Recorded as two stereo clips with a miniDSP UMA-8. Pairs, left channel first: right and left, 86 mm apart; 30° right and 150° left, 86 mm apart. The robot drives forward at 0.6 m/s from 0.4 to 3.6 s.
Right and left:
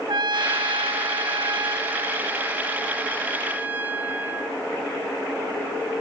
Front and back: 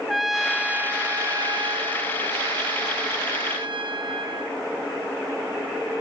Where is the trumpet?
60° left, 0.7 m; by 4.6 s 160° left, 1.7 m.